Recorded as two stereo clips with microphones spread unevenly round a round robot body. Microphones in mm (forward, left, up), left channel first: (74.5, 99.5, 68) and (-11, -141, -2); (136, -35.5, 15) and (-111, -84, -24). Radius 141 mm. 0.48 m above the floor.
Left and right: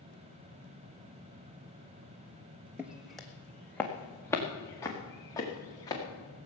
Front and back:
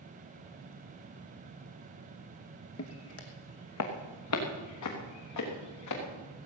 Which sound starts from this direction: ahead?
Footsteps, at 2.8 s.